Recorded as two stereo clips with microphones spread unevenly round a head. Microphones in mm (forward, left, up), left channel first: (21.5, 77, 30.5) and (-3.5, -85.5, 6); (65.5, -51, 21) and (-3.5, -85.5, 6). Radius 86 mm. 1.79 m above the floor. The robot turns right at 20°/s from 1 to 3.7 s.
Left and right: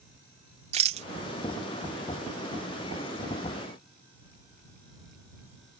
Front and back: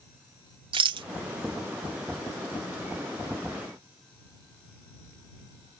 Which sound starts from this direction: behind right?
A rattle, at 0.7 s.